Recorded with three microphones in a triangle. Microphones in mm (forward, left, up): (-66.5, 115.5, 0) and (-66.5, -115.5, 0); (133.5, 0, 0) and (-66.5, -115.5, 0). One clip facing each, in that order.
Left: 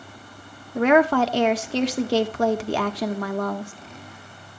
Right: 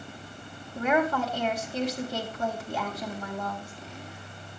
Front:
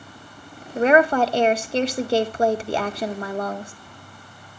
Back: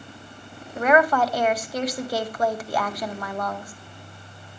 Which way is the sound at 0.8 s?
90° left.